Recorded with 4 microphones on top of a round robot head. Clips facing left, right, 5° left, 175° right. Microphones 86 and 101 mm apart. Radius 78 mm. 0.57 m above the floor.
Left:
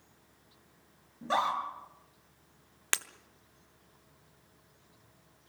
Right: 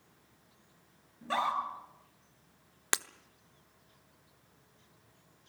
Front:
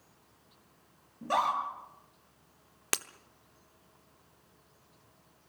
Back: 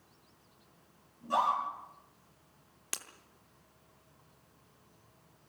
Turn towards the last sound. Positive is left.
turn(degrees=-20)